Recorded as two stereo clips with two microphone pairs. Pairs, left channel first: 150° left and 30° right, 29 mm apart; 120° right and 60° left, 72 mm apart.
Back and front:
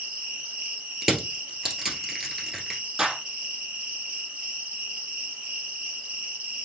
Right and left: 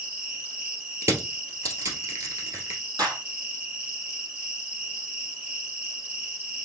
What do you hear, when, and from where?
0.0 s an insect: 5° right, 3 m
1.0 s crushing: 45° left, 1.7 m
3.0 s a clap: 40° left, 3 m